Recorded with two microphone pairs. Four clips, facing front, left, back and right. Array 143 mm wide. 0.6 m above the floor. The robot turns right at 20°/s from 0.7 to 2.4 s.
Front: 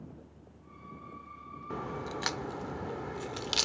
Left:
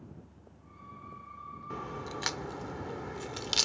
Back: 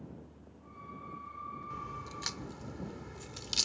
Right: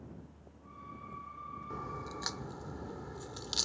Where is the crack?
15° left; by 3.6 s 30° left.